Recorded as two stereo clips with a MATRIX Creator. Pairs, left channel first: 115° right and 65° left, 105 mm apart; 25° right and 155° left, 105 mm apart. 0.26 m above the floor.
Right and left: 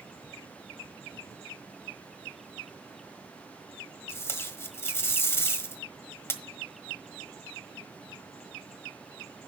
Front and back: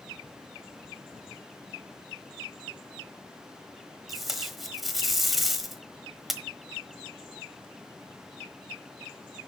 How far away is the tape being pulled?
About 1.2 m.